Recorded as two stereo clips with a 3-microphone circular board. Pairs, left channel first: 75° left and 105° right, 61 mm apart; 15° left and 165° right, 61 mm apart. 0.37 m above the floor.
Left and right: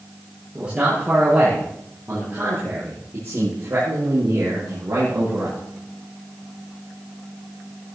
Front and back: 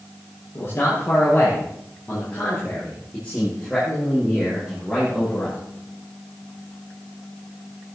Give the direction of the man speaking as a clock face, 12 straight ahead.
1 o'clock.